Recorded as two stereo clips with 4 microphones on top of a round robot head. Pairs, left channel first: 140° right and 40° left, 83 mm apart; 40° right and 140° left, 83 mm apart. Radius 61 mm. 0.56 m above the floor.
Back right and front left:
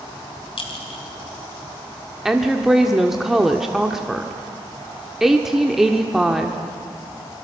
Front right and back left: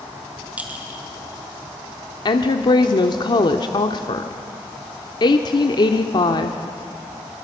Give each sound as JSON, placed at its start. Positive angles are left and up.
{"t": 0.6, "sound": "a clink", "azimuth_deg": -145, "distance_m": 3.0}
{"t": 2.2, "sound": "a woman speaking", "azimuth_deg": -45, "distance_m": 1.2}